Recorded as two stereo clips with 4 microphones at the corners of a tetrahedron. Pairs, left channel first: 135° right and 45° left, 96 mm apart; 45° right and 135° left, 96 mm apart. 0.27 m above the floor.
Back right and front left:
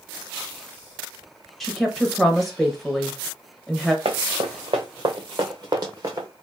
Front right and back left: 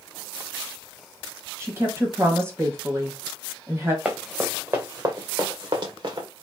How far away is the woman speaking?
About 1.2 m.